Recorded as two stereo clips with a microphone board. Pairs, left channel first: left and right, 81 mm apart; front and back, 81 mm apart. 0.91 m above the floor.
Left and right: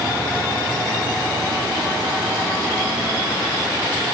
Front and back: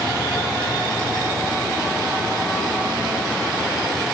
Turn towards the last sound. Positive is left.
No sound to turn to.